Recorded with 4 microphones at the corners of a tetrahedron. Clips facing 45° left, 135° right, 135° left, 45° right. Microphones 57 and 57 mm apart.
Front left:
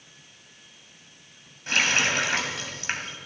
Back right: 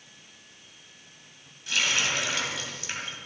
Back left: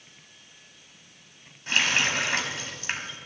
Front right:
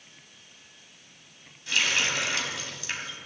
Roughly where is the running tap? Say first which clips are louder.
Front left 4 dB, back left 2 dB; left.